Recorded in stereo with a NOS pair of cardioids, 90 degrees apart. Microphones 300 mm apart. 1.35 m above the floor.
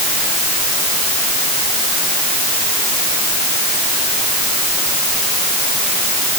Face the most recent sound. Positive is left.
No sound to turn to.